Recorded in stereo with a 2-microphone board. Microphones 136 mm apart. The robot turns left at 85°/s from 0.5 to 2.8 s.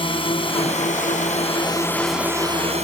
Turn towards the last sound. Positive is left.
turn(degrees=-60)